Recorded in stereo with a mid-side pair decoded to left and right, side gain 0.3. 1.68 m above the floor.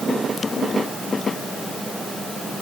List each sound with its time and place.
Only background noise.